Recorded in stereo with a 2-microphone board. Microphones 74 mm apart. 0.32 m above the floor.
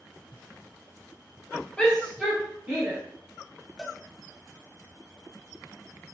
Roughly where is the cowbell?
Centre.